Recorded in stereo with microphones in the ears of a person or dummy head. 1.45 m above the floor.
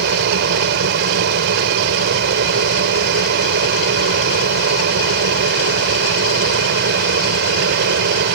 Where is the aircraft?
55° right (ahead or behind).